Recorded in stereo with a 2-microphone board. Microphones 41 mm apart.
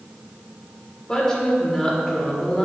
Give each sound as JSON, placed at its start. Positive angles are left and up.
{"t": 1.1, "sound": "a woman speaking", "side_deg": 15, "distance_m": 1.4}